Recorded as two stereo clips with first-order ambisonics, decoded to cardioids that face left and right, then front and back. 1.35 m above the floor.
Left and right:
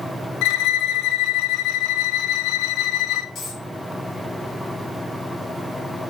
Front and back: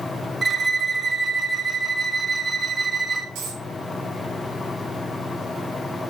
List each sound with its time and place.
0.4 s a violin: 100° left, 0.7 m
3.4 s a dropped coin: 155° left, 3 m